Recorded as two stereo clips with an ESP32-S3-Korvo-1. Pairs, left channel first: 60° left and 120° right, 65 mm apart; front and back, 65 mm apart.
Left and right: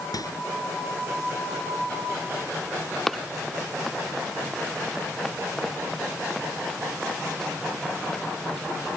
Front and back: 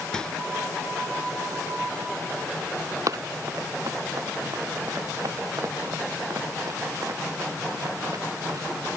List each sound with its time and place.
0.1 s a microwave: 80° left
3.1 s running footsteps: 145° left